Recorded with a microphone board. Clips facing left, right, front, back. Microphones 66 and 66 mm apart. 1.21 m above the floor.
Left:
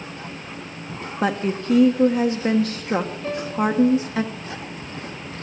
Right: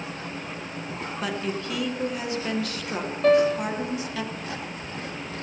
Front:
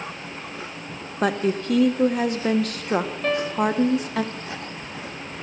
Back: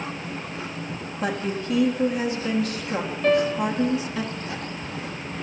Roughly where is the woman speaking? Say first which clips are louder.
Left 8 dB, front 5 dB; ahead left.